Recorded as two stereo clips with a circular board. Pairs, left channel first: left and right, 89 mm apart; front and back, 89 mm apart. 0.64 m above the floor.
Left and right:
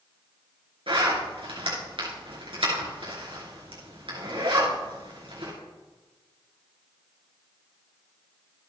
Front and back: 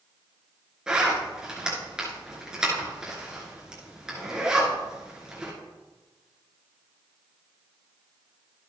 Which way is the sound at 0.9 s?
100° right.